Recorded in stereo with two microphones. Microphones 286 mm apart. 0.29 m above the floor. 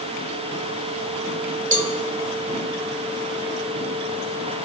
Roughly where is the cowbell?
Right.